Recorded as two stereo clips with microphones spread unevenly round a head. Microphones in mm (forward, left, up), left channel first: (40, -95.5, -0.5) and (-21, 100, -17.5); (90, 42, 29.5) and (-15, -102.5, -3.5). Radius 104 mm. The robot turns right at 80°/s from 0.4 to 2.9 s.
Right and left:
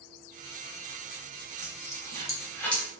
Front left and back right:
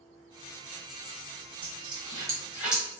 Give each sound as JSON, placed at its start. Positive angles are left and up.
{"t": 1.6, "sound": "a dropped coin", "azimuth_deg": -105, "distance_m": 1.0}